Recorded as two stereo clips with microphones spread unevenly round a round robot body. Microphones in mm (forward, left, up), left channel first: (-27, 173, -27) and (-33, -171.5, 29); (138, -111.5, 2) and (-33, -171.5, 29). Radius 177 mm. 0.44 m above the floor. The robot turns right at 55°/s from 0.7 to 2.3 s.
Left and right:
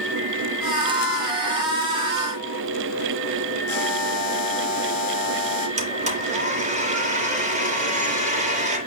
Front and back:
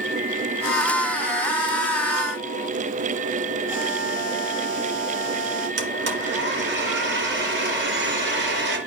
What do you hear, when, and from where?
3.7 s a buzzer: 115° left, 4 m
5.8 s a blender: 160° right, 3 m